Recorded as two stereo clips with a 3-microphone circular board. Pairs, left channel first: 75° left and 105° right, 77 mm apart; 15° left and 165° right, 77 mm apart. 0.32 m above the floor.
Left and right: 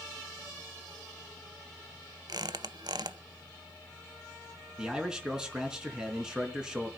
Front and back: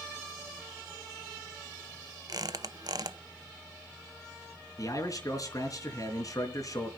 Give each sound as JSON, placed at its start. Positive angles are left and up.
{"t": 2.3, "sound": "a squeak", "azimuth_deg": -130, "distance_m": 0.7}
{"t": 4.8, "sound": "a man speaking", "azimuth_deg": -25, "distance_m": 3.5}